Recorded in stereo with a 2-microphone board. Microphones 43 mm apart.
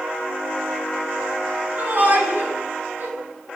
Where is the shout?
55° right (ahead or behind), 9.5 m; by 3.1 s 60° right (ahead or behind), 9 m.